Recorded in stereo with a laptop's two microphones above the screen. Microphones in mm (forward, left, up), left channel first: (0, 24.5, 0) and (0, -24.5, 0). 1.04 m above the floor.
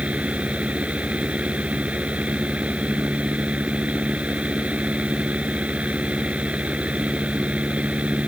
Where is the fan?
25° right (ahead or behind).